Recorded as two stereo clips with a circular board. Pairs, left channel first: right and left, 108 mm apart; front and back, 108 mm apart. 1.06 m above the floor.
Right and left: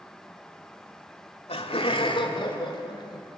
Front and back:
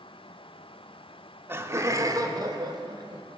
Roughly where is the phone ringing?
I don't hear a phone ringing.